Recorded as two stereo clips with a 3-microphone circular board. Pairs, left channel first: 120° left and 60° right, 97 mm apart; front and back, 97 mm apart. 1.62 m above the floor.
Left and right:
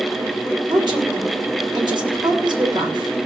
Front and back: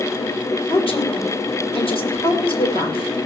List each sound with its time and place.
0.7 s a woman speaking: 20° right, 6 m